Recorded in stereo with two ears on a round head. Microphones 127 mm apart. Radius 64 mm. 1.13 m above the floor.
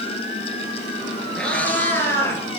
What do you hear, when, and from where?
1.4 s a cat meowing: 5° left (ahead or behind), 1.9 m; by 2.4 s 20° left (ahead or behind), 2.5 m